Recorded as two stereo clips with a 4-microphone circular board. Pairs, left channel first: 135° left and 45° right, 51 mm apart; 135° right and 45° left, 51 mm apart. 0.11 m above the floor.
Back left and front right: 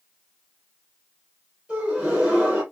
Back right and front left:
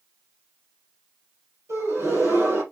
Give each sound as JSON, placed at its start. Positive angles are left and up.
{"t": 1.7, "sound": "a gasp", "azimuth_deg": 20, "distance_m": 4.0}